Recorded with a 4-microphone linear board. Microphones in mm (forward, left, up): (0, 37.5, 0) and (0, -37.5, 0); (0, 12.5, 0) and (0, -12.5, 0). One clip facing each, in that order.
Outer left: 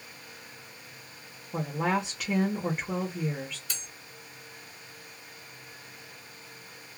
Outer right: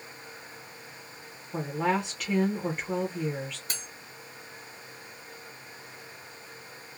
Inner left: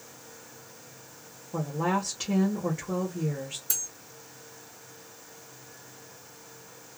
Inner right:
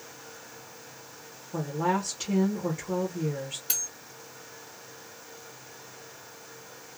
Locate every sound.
1.5 s a woman speaking: 5° left (ahead or behind), 0.8 m
3.7 s cutlery clinking: 50° right (ahead or behind), 1.3 m